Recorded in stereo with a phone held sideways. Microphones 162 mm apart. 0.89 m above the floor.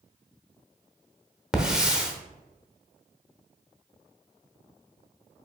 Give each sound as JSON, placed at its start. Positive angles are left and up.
{"t": 1.5, "sound": "a hiss", "side_deg": -5, "distance_m": 0.8}